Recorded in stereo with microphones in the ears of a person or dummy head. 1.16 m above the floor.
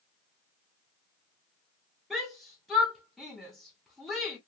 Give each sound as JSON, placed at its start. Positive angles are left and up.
{"t": 2.1, "sound": "a shout", "side_deg": -5, "distance_m": 0.6}